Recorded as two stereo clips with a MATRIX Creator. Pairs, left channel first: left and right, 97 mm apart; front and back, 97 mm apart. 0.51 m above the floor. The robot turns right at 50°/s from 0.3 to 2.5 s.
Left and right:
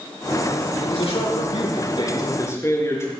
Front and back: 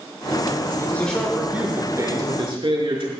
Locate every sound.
0.8 s a man speaking: 65° left, 6 m; by 3.1 s 150° left, 6 m